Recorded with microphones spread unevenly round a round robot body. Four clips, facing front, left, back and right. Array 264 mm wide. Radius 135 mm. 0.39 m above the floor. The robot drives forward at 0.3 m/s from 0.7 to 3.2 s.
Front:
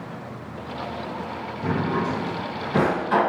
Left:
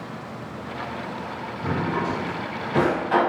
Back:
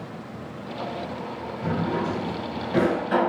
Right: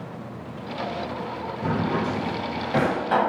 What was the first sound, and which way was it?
A drawer, 105° right.